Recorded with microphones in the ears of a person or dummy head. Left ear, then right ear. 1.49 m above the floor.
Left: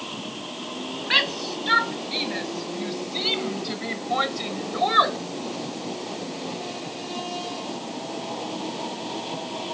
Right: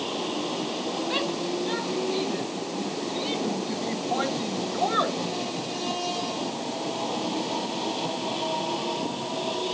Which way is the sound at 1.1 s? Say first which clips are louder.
Left 9 dB; 60° left (ahead or behind).